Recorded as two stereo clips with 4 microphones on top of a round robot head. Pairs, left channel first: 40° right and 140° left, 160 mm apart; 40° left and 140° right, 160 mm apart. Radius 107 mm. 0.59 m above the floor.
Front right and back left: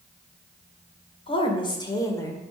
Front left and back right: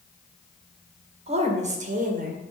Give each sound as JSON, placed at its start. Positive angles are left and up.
{"t": 1.3, "sound": "a woman speaking", "azimuth_deg": -90, "distance_m": 2.0}